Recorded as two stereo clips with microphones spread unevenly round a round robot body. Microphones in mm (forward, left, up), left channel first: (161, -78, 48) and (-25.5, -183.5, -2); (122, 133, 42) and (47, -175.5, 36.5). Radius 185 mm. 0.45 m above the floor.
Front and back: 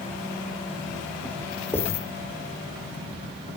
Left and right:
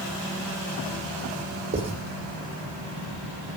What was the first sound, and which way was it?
Writing, 50° right.